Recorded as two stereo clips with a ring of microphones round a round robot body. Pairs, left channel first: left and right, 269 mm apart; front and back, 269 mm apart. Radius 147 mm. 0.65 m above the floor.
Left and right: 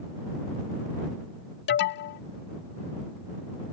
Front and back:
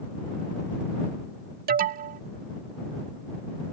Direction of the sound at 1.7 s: 130° left.